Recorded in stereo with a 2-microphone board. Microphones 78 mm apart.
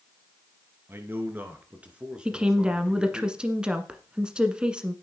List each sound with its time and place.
0.9 s a man speaking: 30° right (ahead or behind), 2.5 m; by 3.2 s 5° left (ahead or behind), 2 m
2.2 s a woman speaking: 10° right (ahead or behind), 1.4 m